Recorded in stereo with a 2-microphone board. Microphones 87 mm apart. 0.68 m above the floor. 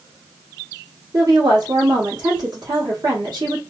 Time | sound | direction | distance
1.1 | a woman speaking | 55° right (ahead or behind) | 1.3 m